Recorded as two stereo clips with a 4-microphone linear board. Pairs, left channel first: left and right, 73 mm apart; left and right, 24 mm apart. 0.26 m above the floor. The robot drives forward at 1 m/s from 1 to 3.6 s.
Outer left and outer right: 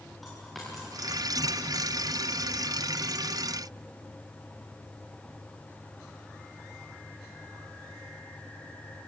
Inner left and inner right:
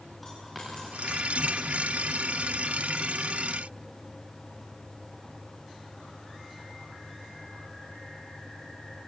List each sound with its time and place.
0.2 s a dropped coin: centre (ahead or behind), 8 m